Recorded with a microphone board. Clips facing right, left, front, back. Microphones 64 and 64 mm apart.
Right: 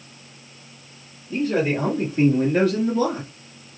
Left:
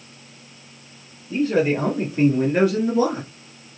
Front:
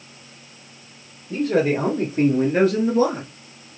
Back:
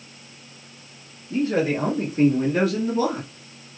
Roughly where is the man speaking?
Ahead.